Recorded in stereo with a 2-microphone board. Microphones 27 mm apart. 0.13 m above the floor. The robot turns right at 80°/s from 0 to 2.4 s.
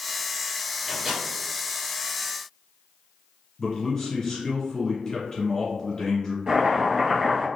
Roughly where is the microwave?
Centre.